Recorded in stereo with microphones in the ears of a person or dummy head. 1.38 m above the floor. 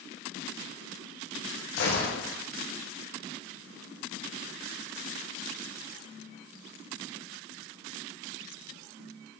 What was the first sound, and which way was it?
A gunshot, 60° left (ahead or behind).